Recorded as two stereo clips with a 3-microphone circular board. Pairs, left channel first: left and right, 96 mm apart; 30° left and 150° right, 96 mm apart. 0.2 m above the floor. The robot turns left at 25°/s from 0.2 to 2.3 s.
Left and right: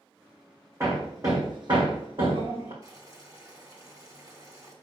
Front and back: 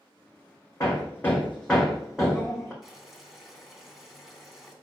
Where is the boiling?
65° right, 2 m.